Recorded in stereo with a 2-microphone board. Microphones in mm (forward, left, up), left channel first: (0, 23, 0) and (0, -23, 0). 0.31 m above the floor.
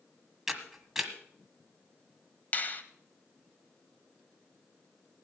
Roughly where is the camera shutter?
Centre.